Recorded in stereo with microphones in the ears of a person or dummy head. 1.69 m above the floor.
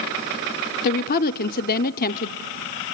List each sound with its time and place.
0.8 s a woman speaking: 45° left (ahead or behind), 0.6 m